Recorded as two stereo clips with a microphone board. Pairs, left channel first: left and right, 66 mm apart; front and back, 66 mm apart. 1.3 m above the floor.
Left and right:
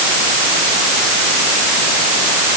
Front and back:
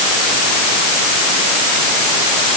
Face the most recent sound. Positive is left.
No sound to turn to.